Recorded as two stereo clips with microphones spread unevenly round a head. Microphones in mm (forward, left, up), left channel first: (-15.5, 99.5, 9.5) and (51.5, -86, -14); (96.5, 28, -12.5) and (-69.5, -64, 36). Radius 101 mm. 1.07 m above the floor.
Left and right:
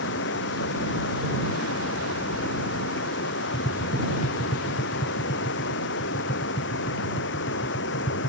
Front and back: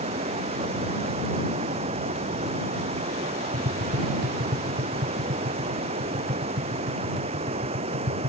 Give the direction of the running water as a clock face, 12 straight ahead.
7 o'clock.